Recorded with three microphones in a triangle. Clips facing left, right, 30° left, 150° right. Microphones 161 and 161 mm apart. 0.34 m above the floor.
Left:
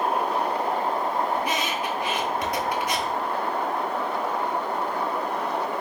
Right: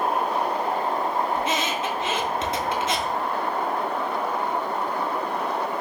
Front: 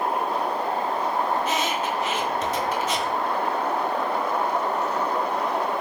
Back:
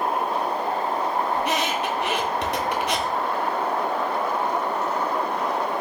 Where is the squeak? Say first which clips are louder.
Right 1 dB, back 1 dB; 155° right, 0.9 m.